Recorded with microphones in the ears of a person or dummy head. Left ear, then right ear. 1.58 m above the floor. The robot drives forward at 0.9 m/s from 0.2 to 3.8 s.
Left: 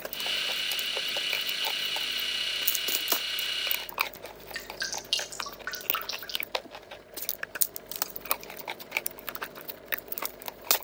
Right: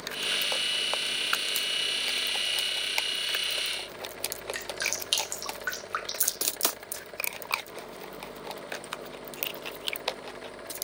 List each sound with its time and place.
4.5 s dripping: 25° right (ahead or behind), 1.1 m